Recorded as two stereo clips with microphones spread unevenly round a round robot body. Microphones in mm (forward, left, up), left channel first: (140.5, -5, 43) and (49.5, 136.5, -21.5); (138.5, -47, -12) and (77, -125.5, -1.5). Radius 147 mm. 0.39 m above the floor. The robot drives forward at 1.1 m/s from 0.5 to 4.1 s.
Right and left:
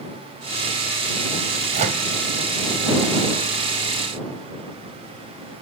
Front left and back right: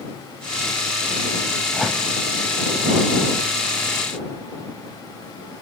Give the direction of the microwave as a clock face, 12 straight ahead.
7 o'clock.